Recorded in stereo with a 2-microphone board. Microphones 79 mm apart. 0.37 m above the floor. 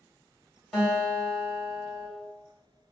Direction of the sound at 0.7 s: Centre (ahead or behind).